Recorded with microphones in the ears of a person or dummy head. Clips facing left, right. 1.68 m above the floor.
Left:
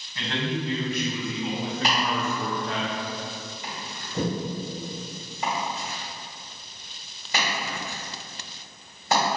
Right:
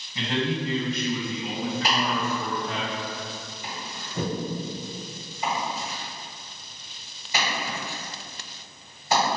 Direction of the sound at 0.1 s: 20° right (ahead or behind).